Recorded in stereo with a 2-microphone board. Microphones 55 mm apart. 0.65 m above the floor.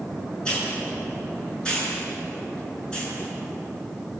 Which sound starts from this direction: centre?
A hiss, at 0.5 s.